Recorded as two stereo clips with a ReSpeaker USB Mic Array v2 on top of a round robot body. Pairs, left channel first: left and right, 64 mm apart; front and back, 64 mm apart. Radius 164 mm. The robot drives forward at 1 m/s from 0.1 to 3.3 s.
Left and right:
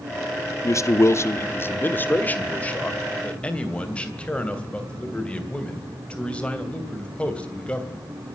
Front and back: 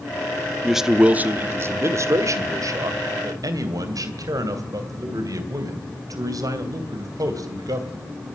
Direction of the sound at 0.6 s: 90° left.